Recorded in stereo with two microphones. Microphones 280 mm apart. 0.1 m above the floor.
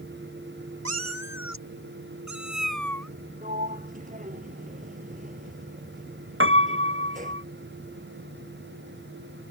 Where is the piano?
45° right (ahead or behind).